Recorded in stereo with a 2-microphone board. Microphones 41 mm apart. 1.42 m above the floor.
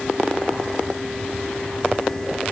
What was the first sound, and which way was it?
Only background noise.